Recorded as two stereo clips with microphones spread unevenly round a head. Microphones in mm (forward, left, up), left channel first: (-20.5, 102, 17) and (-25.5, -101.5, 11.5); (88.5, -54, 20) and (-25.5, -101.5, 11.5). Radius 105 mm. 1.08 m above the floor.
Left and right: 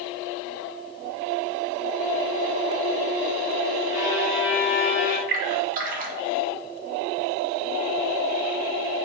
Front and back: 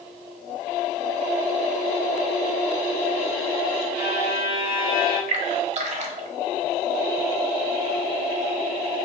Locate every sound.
3.9 s a violin: 145° left, 2.0 m
5.3 s a splash: 140° right, 1.0 m